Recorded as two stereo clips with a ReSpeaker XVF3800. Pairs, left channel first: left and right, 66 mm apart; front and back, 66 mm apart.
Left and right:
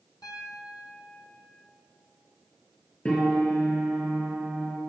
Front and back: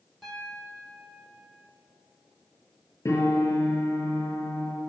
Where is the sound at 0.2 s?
90° left, 3 m.